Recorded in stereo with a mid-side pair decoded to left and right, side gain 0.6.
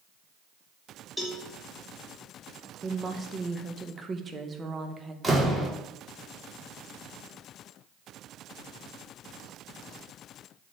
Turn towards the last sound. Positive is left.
turn(degrees=-10)